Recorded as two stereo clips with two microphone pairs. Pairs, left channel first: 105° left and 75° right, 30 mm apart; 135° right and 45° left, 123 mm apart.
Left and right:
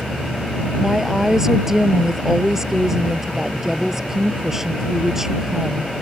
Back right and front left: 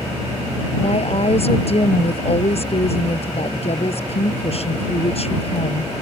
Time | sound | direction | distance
0.8 | a woman speaking | 150° right | ?